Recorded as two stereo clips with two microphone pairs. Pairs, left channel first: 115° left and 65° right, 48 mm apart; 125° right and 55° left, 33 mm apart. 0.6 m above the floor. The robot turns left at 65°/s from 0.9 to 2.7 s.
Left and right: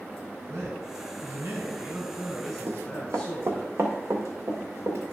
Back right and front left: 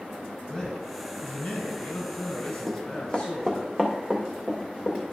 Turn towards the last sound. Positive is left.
turn(degrees=-60)